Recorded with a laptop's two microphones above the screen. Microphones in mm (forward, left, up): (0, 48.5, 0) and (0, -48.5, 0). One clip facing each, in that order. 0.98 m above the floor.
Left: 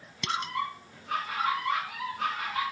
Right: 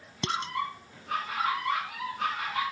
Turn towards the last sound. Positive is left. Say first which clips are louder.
# right 1 dB
turn(degrees=-30)  # may be behind; listen again after turning